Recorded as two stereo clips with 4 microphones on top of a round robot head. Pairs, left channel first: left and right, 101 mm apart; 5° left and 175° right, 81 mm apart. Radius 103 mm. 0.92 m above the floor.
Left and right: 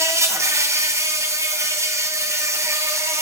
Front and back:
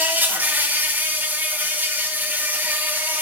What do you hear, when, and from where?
0.0 s an insect: 125° right, 1.3 m